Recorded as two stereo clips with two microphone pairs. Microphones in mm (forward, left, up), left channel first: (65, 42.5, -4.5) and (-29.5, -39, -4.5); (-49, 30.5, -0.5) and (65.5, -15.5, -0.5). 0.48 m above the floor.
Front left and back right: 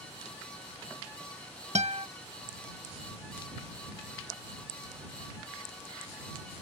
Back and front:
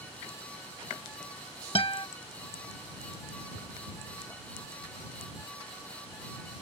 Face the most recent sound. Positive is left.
turn(degrees=-160)